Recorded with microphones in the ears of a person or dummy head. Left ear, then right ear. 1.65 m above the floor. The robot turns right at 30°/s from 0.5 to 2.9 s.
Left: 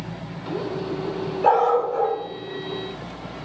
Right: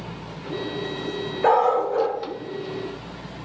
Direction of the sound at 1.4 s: 45° right (ahead or behind).